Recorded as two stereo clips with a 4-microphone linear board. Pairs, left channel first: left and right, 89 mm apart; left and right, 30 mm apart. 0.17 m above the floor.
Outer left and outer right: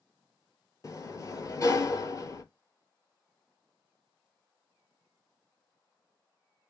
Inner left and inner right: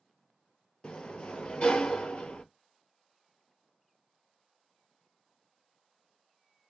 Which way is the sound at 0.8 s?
40° left (ahead or behind).